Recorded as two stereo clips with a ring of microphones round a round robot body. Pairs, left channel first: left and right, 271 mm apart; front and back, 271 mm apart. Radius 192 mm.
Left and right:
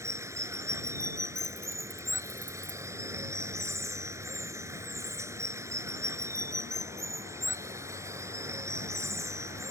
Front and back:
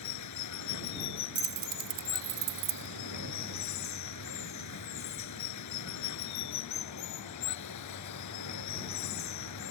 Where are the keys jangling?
175° right.